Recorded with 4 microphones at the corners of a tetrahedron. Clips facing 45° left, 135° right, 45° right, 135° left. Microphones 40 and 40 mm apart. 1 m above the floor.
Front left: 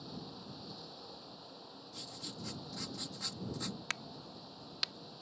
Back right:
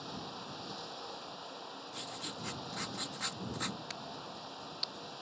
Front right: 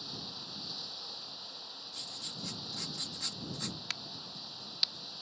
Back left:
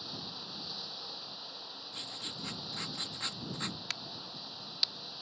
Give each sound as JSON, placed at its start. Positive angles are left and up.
{"t": 0.0, "sound": "running water", "azimuth_deg": -140}
{"t": 1.9, "sound": "writing", "azimuth_deg": -165}
{"t": 3.9, "sound": "a crack", "azimuth_deg": 45}